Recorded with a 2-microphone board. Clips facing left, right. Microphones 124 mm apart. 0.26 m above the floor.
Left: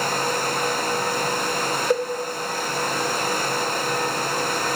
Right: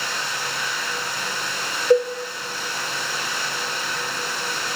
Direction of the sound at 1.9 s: 10° left (ahead or behind).